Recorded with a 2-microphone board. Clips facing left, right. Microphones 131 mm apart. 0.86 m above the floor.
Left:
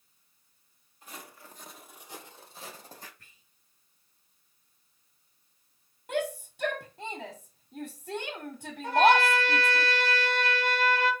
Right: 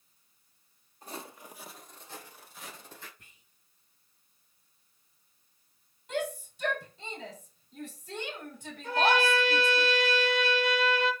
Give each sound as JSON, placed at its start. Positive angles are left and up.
{"t": 1.0, "sound": "footsteps", "side_deg": -40, "distance_m": 1.6}
{"t": 3.2, "sound": "whispering", "side_deg": -20, "distance_m": 1.0}
{"t": 6.1, "sound": "a shout", "side_deg": 70, "distance_m": 2.0}
{"t": 8.8, "sound": "a trumpet", "side_deg": 65, "distance_m": 3.0}